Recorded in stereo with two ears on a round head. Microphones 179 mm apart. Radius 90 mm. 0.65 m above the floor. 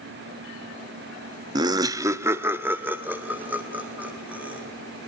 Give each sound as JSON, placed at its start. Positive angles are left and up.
{"t": 1.6, "sound": "laughter", "side_deg": -20, "distance_m": 0.5}